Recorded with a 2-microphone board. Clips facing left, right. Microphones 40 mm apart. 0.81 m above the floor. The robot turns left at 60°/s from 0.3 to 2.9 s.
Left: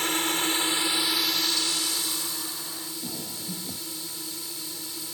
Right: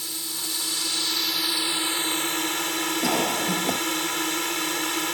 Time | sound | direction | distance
0.0 | a drone | 60° left | ?
3.0 | a cough | 80° right | ?